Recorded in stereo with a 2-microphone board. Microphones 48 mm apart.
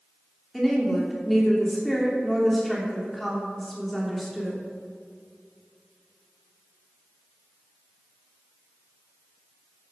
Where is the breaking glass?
No breaking glass in this recording.